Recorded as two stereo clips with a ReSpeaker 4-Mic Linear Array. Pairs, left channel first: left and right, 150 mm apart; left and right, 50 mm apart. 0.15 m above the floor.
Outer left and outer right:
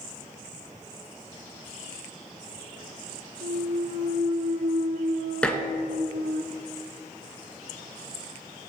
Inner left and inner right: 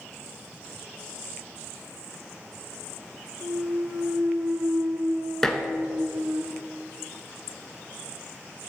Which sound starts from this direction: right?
A clunk, at 3.4 s.